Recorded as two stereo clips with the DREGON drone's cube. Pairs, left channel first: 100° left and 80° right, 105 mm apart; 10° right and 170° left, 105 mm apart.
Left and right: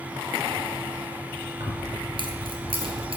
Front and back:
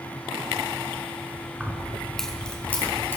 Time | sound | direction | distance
1.6 | keys jangling | 110° right | 1.7 m